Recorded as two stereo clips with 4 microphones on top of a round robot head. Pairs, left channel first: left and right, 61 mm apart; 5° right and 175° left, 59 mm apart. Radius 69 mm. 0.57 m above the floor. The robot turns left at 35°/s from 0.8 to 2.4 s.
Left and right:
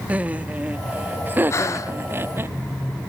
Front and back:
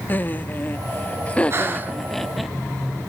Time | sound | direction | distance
0.1 | laughter | 40° right | 0.9 m
1.5 | breathing | 130° left | 1.5 m